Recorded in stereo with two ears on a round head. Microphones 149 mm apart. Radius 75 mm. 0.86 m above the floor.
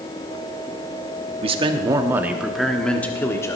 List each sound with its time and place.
1.4 s a man speaking: 35° right (ahead or behind), 1.2 m; by 3.6 s 20° left (ahead or behind), 1.6 m